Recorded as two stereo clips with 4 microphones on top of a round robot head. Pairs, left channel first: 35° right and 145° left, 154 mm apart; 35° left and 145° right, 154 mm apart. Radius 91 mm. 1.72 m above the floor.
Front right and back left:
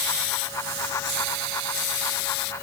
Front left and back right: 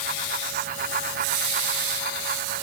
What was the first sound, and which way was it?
Only background noise.